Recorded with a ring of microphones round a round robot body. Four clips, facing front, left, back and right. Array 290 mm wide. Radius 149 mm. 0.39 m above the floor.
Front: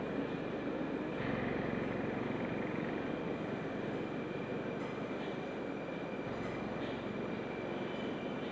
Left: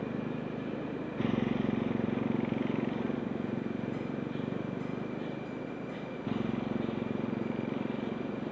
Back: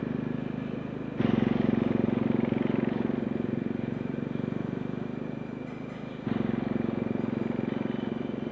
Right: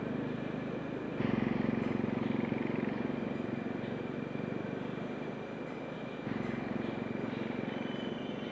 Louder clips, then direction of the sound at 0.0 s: Left 1 dB, back 6 dB; straight behind.